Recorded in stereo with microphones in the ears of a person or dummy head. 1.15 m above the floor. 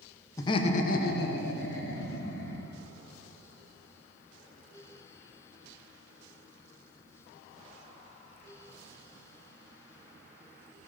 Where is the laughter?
15° left (ahead or behind), 0.7 m; by 2.6 s 75° left (ahead or behind), 2.5 m.